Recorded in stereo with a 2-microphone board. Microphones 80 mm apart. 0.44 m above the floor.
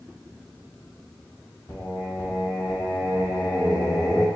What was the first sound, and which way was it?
Singing, 30° left (ahead or behind).